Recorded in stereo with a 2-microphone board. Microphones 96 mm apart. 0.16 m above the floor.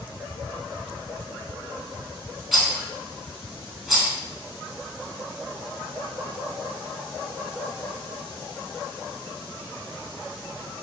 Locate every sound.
2.5 s a rattle: centre (ahead or behind), 0.8 m